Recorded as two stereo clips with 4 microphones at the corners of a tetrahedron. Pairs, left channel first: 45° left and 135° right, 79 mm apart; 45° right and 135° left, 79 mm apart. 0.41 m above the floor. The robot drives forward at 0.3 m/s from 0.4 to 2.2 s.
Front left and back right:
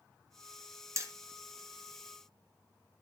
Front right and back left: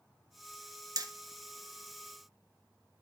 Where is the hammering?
175° left, 2.0 m.